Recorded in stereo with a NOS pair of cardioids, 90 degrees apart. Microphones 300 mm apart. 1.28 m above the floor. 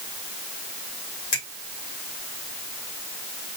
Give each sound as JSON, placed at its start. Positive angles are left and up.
{"t": 1.3, "sound": "a finger snap", "azimuth_deg": 65, "distance_m": 1.5}